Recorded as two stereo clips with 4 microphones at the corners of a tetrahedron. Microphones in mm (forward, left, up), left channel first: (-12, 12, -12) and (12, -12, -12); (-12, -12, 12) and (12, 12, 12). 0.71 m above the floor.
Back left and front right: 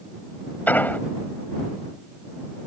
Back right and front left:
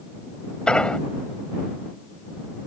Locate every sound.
0.7 s an explosion: 160° left